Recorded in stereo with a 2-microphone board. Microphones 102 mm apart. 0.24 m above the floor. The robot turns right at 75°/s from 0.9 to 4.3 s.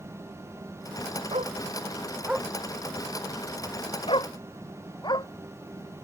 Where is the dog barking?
85° right; by 5.3 s 40° left (ahead or behind).